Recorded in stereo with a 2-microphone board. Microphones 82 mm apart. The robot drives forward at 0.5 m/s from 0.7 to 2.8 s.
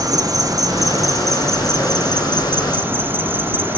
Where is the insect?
45° right (ahead or behind), 1.4 m; by 3.8 s 25° right (ahead or behind), 2.5 m.